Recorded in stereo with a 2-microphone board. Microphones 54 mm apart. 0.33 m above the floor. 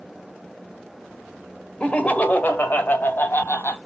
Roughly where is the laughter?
Left.